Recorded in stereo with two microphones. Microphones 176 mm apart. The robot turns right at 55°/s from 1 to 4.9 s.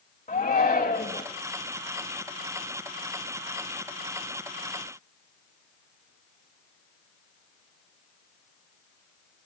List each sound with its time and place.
0.3 s a shout: 40° left (ahead or behind), 1.4 m; by 1.2 s 45° left (ahead or behind), 1.4 m